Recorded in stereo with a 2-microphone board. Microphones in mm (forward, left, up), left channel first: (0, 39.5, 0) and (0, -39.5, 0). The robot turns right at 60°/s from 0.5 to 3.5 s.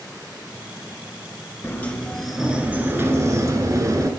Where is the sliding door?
145° left, 1.3 m; by 4.1 s 105° right, 1.3 m.